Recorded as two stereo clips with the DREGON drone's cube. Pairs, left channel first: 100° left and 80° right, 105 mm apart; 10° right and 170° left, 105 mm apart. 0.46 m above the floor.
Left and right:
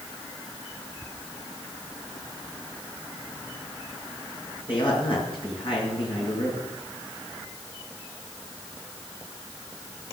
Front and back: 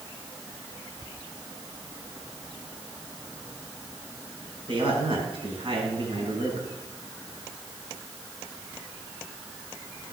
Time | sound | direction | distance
4.7 | a man speaking | 135° left | 4.5 m